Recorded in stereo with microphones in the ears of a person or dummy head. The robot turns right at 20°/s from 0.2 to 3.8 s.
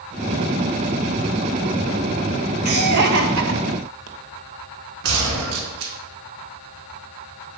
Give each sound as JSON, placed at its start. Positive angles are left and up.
{"t": 2.6, "sound": "laughter", "side_deg": -55, "distance_m": 1.6}
{"t": 5.0, "sound": "a gunshot", "side_deg": -80, "distance_m": 2.5}